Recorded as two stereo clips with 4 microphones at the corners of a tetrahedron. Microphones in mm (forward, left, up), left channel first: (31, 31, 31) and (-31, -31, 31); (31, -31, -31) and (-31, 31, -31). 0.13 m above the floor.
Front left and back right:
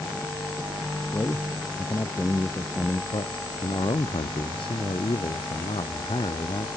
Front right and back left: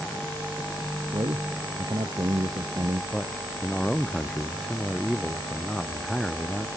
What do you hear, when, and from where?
1.1 s a man speaking: 100° left
3.1 s a man speaking: 40° left